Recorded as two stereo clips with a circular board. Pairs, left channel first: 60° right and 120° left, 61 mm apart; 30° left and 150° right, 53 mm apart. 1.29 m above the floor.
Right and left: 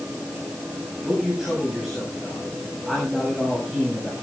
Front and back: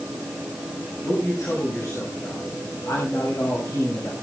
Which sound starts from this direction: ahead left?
A man speaking, at 1.0 s.